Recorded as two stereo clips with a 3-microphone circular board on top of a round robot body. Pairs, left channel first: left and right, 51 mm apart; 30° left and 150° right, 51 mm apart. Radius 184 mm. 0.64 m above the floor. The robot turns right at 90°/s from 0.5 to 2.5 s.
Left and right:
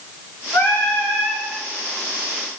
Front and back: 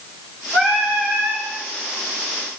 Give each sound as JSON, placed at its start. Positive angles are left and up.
{"t": 0.5, "sound": "singing", "azimuth_deg": 120, "distance_m": 9.0}